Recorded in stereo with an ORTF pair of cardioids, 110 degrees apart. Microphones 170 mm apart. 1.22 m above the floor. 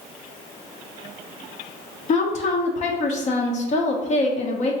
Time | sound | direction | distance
2.1 | a woman speaking | 45° left | 0.7 m